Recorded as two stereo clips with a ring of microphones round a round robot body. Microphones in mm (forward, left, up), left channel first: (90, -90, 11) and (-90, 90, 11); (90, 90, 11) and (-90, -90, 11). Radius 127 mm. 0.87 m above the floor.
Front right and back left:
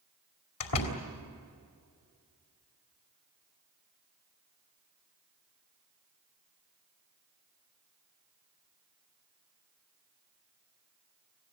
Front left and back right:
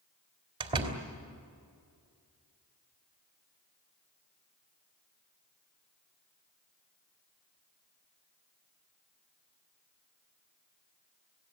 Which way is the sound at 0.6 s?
65° right.